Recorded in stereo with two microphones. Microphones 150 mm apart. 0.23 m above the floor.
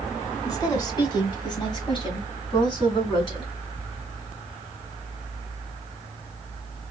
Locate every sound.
0.4 s a woman speaking: 25° left (ahead or behind), 1.7 m; by 3.5 s 35° left (ahead or behind), 2 m